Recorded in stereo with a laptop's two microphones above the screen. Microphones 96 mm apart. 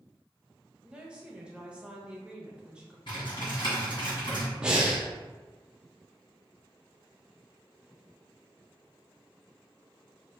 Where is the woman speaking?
10° right (ahead or behind), 1.0 m.